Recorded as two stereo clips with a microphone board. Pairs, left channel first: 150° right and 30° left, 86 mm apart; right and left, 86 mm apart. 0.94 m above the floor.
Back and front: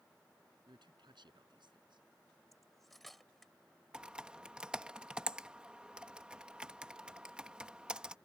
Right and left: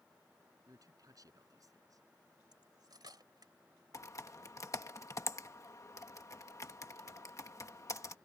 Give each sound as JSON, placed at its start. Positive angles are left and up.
{"t": 0.7, "sound": "a man speaking", "azimuth_deg": 45}
{"t": 2.5, "sound": "cutlery clinking", "azimuth_deg": 120}
{"t": 3.9, "sound": "typing on a keyboard", "azimuth_deg": -45}